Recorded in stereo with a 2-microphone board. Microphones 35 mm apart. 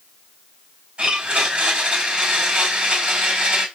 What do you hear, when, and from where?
1.0 s a blender: 35° right (ahead or behind), 4 m